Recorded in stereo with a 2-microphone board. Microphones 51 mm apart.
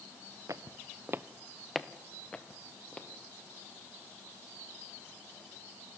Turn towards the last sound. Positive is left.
turn(degrees=20)  # may be behind; listen again after turning